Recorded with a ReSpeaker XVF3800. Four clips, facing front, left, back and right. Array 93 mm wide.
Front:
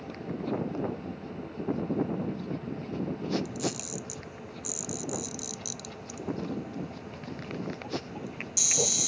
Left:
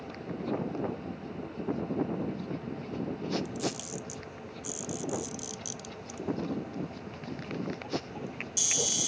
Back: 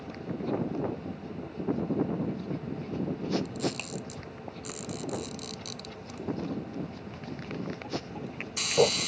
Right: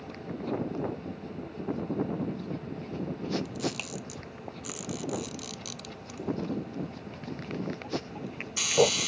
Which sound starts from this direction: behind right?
A camera shutter, at 3.5 s.